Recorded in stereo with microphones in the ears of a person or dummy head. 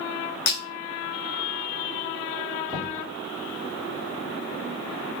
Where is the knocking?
20° left (ahead or behind), 2.0 m.